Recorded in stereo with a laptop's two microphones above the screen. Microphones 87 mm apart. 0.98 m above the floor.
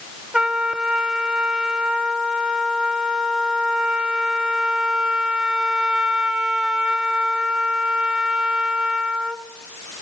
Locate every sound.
0.3 s a trumpet: 10° right (ahead or behind), 1.0 m